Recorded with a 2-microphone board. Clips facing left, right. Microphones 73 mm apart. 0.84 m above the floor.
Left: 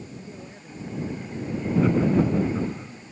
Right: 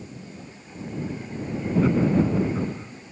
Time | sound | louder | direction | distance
0.2 | a man speaking | left 1 dB | 30° left (ahead or behind) | ?
1.8 | laughter | even | centre (ahead or behind) | ?